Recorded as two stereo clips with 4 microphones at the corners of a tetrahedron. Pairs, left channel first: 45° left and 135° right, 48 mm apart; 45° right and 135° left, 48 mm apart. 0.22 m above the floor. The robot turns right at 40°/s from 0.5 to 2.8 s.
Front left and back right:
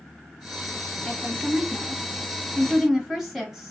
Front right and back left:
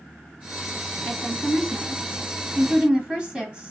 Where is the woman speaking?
90° left, 1.2 m; by 3.7 s 160° left, 1.2 m.